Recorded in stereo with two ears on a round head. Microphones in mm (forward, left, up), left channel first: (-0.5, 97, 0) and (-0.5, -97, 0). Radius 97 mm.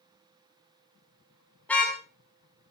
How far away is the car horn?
About 6 m.